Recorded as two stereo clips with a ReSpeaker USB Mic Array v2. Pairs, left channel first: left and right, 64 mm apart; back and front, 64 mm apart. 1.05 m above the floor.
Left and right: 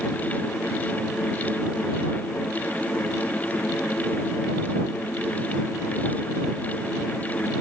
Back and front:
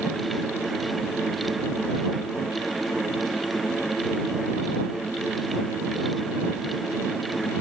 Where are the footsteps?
No footsteps in this recording.